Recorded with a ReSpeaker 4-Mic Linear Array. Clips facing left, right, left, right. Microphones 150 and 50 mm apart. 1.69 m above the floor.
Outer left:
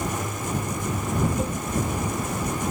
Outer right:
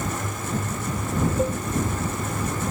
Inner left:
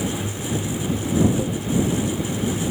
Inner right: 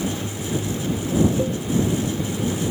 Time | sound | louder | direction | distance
1.4 | a cowbell | outer right 4 dB, inner right 2 dB | 40° right (ahead or behind) | ?